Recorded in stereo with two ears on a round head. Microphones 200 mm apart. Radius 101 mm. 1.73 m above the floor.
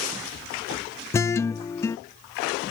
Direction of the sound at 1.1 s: 10° left (ahead or behind).